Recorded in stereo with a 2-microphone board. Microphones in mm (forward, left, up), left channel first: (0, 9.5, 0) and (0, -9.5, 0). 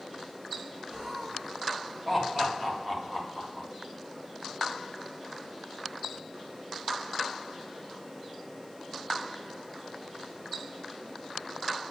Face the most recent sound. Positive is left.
turn(degrees=-10)  # may be behind; listen again after turning